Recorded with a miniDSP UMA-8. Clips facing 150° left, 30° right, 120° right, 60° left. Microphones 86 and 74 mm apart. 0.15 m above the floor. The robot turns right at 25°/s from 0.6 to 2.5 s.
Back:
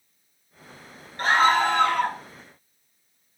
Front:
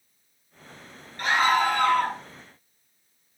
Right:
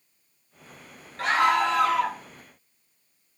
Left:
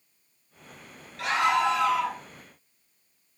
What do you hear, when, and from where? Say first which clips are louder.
1.2 s a scream: back 2 dB, right 2 dB; 165° right, 2.5 m; by 2.2 s 140° right, 2.5 m